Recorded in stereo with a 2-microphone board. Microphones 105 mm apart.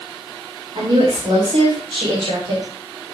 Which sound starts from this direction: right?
A woman speaking, at 0.8 s.